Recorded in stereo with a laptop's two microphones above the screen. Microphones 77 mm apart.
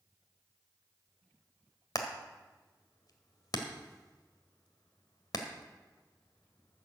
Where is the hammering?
60° left (ahead or behind), 1.7 m.